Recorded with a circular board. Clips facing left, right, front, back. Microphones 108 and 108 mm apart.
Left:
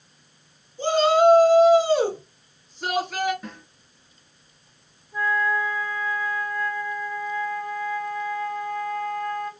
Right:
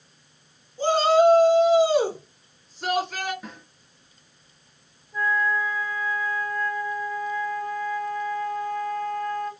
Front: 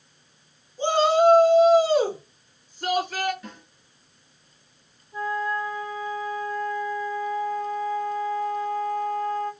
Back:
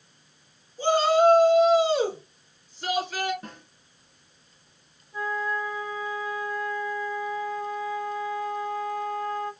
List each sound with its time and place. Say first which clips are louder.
0.8 s a shout: even, front 1 dB; 60° right, 1.8 m; by 3.3 s 10° left, 2 m
3.4 s a snare drum: left 2 dB, front 1 dB; 170° right, 1.5 m
5.1 s a flute: left 1 dB, front 2 dB; 25° left, 1.3 m